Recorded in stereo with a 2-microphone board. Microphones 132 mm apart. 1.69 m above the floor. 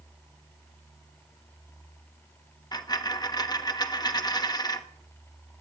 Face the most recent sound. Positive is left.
turn(degrees=30)  # may be behind; listen again after turning